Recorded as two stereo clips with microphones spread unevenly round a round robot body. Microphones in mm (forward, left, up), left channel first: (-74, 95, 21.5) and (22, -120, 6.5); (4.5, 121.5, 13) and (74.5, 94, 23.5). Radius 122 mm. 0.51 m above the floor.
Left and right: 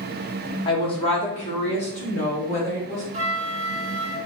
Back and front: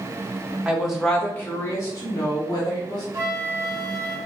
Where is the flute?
50° right, 0.8 m.